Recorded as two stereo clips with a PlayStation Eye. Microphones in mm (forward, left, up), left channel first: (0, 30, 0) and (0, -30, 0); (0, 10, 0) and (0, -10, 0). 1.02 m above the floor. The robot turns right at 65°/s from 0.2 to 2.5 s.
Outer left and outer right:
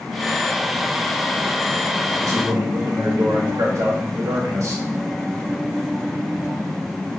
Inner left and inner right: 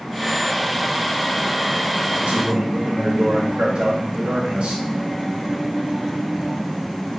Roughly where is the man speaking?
Right.